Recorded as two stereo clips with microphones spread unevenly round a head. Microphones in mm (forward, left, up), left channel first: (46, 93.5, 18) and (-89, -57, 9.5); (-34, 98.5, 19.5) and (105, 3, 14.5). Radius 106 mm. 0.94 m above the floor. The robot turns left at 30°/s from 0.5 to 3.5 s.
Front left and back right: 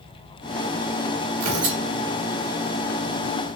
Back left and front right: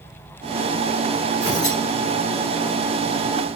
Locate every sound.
1.4 s tearing paper: 135° right, 2.5 m; by 1.8 s 150° right, 2.5 m